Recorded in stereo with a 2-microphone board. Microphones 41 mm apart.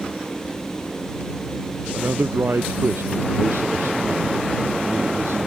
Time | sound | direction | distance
1.9 | a man speaking | 70° right (ahead or behind) | ?